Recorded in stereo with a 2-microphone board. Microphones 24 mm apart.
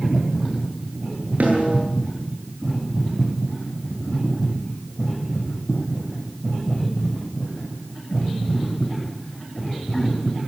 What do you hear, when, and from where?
1.4 s a snare drum: 90° right, 9.5 m